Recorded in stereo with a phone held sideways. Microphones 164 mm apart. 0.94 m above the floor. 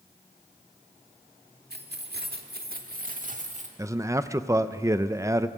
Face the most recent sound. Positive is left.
turn(degrees=-20)  # may be behind; listen again after turning